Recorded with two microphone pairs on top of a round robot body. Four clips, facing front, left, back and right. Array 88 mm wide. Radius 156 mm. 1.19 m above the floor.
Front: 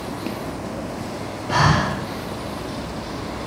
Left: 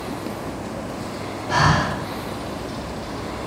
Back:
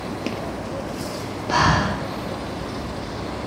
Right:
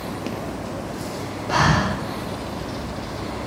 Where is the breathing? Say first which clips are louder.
Left 1 dB, even; 60° right, 1.9 m.